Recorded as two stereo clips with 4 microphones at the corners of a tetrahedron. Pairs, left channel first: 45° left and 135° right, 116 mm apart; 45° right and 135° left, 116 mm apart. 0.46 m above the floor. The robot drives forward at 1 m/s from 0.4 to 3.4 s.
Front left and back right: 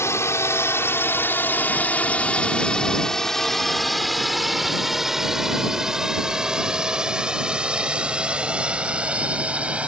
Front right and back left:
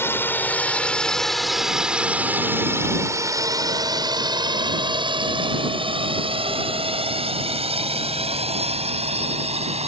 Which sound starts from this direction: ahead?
A drone, at 0.0 s.